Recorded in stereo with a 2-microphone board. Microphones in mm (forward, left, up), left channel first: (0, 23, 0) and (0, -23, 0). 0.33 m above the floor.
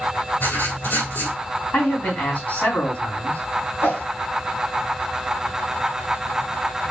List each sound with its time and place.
0.4 s writing: 55° left (ahead or behind), 2.5 m
1.7 s a man speaking: 40° left (ahead or behind), 3 m
3.8 s a whoosh: 50° left (ahead or behind), 2.5 m